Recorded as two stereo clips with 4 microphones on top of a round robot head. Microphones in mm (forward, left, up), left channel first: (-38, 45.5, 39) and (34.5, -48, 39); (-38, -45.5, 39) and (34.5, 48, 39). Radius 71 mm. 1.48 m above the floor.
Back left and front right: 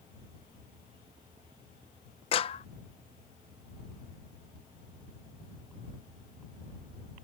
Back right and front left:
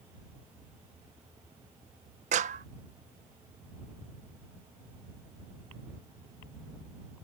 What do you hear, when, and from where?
2.3 s a clap: 80° left